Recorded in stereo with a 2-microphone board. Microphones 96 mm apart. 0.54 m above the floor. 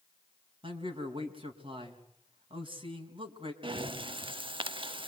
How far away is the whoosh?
No whoosh in this recording.